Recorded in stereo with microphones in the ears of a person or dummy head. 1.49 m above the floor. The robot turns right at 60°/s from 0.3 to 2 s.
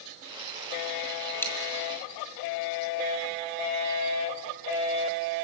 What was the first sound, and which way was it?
A dropped coin, 10° left (ahead or behind).